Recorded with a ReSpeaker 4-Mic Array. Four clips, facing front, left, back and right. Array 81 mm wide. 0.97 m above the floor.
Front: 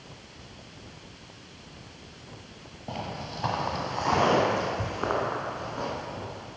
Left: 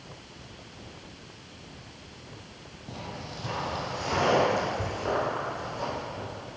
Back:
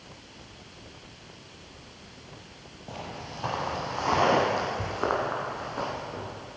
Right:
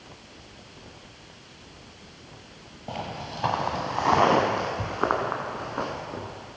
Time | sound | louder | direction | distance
2.9 | footsteps | right 6 dB, front 3 dB | 70° right | 1.2 m